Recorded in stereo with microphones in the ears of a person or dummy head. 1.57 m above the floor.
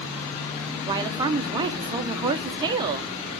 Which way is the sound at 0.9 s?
25° right (ahead or behind).